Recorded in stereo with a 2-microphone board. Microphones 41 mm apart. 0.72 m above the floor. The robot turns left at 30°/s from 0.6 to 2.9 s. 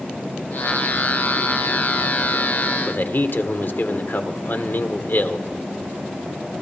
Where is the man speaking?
55° left (ahead or behind), 1.6 m.